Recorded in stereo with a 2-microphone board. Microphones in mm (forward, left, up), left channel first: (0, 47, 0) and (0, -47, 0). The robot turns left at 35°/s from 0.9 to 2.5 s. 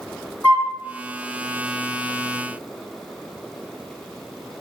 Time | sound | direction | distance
0.4 | a flute | 25° left (ahead or behind) | 1.2 m